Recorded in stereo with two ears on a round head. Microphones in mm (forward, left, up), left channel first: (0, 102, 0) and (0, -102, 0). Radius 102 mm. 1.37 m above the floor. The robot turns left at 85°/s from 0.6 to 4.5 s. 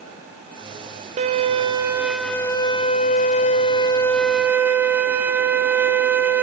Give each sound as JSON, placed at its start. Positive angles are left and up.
{"t": 1.2, "sound": "a violin", "side_deg": -30, "distance_m": 0.6}